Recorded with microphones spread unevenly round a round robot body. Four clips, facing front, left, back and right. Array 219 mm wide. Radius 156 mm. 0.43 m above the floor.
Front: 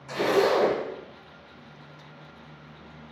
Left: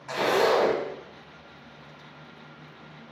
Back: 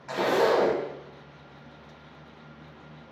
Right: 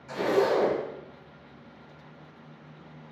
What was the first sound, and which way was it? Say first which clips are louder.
A zipper: left 2 dB, front 1 dB; 105° left.